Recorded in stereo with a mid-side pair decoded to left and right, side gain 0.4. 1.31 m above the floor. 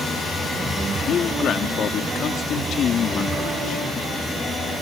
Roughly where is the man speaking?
Left.